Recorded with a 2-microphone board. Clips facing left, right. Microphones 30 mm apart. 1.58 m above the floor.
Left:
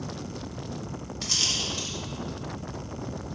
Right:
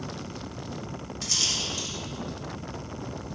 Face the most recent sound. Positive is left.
turn(degrees=15)  # may be behind; listen again after turning